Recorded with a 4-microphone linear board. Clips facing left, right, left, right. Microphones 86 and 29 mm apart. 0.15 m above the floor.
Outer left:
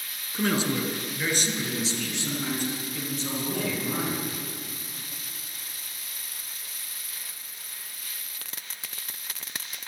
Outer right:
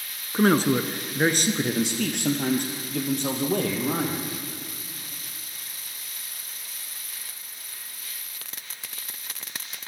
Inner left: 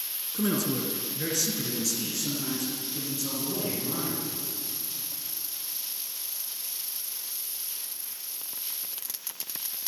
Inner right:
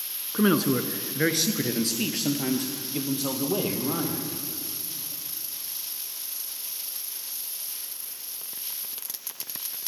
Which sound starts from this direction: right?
A man speaking, at 0.3 s.